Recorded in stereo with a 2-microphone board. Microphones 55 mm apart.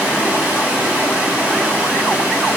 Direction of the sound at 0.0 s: 20° right (ahead or behind).